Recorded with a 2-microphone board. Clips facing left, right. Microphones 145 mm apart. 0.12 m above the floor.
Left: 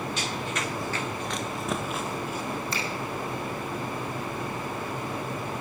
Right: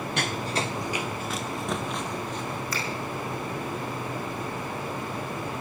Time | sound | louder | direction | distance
0.2 | running footsteps | right 2 dB | 65° right (ahead or behind) | 0.9 m
2.7 | a finger snap | even | 25° left (ahead or behind) | 5 m